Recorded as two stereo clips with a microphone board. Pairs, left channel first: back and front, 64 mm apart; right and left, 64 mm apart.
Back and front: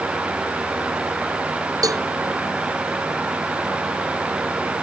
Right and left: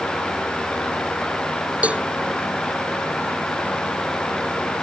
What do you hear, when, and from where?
1.8 s a cowbell: 20° left